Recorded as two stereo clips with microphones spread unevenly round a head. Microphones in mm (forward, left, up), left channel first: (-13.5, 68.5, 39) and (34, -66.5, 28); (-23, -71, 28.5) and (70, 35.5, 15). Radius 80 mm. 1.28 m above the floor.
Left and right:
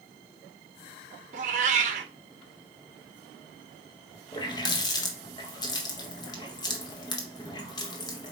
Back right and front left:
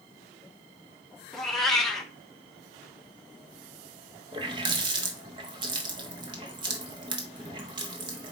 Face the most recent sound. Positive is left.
turn(degrees=90)